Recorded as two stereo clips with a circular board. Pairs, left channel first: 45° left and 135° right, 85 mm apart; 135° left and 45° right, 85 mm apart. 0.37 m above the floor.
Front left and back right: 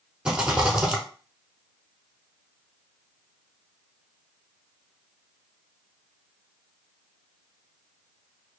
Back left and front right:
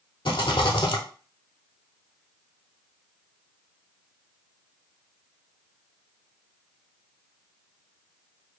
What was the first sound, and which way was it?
A rattle, 145° left.